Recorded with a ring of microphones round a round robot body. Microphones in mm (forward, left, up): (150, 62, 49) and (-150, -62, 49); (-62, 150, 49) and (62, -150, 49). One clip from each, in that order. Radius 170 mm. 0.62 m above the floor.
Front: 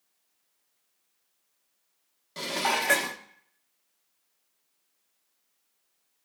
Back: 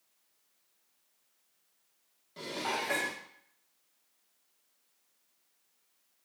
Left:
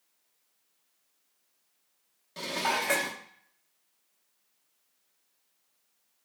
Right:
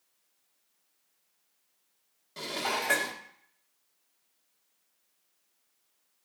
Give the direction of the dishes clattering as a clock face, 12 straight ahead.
11 o'clock.